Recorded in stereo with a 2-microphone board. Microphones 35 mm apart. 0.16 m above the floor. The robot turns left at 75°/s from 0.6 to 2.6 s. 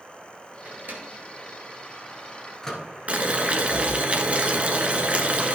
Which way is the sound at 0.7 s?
40° right (ahead or behind).